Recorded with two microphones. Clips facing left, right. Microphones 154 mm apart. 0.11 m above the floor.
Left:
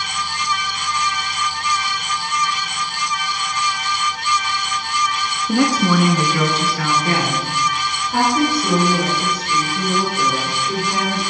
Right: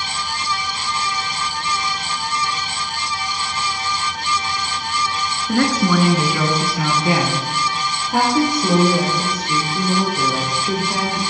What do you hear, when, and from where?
5.5 s a woman speaking: 15° left (ahead or behind), 1.2 m; by 11.2 s 30° right (ahead or behind), 5 m